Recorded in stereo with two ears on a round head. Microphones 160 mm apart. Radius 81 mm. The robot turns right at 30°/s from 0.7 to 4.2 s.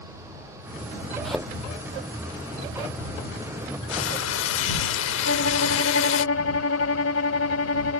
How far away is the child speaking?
I don't hear a child speaking.